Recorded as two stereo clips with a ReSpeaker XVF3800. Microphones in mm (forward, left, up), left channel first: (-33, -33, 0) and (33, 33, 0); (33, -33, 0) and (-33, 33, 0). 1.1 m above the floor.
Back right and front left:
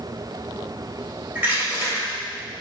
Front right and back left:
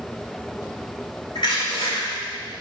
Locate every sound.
1.4 s crushing: 25° right, 3 m